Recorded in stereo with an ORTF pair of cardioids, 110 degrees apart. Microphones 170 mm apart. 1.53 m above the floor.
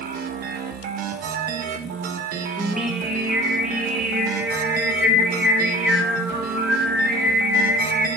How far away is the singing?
About 1.9 m.